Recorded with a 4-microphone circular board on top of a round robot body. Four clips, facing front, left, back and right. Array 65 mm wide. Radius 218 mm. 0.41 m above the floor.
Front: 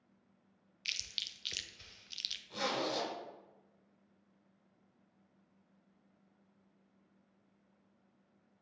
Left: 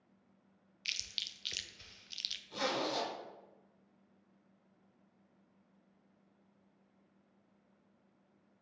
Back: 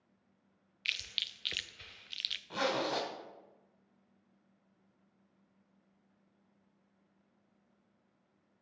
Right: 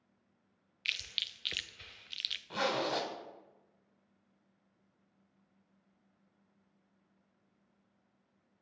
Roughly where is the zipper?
Behind right.